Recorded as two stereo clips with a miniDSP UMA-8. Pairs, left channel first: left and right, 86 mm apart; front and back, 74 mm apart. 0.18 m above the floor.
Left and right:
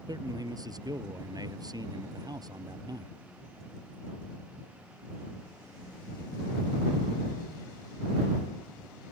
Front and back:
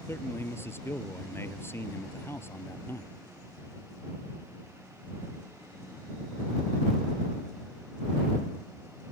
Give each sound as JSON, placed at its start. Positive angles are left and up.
{"t": 0.1, "sound": "a man speaking", "azimuth_deg": -55}